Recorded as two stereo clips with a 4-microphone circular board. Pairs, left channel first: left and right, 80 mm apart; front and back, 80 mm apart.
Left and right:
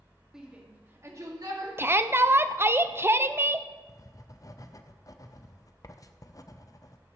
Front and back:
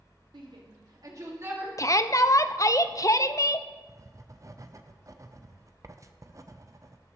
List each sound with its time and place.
0.3 s a shout: 175° right, 2 m; by 1.7 s 120° right, 2.5 m
1.8 s a shout: 35° right, 0.5 m
3.9 s writing: 135° left, 0.6 m